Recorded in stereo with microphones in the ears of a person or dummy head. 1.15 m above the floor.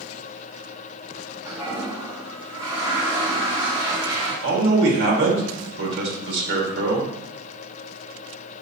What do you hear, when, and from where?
1.4 s a toilet flushing: 25° right (ahead or behind), 1.9 m
4.4 s a man speaking: 75° right (ahead or behind), 1.7 m